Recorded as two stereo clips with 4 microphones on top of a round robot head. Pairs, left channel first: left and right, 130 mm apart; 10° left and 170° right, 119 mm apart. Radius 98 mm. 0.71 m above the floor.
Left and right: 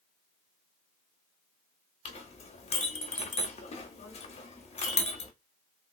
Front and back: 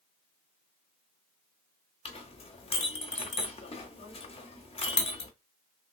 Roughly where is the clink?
Ahead left.